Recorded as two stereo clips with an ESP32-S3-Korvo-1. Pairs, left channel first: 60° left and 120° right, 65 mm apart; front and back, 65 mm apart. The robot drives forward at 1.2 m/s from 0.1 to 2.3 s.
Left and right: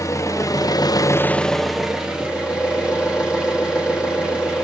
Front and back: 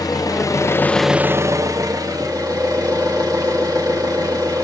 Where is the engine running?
20° left, 1.2 m; by 4.7 s 165° left, 1.6 m.